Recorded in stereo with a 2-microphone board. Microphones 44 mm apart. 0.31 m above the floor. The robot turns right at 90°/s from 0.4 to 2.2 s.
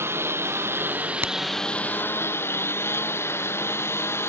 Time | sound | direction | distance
0.0 | a lawn mower | 75° right (ahead or behind) | ?
1.2 | a crack | 60° right (ahead or behind) | ?